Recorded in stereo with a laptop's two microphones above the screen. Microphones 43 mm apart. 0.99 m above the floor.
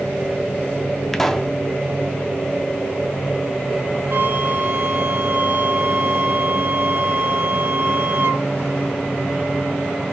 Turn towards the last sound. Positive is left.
turn(degrees=-60)  # may be behind; listen again after turning